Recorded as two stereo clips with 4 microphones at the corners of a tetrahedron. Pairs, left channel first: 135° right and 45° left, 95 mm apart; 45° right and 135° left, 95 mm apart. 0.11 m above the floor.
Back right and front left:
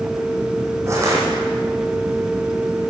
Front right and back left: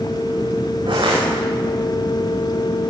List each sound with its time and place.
0.9 s crushing: 105° left, 7.5 m